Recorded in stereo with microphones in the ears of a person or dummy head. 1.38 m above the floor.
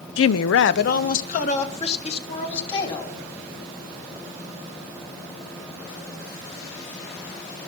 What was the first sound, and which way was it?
A woman speaking, 60° left (ahead or behind).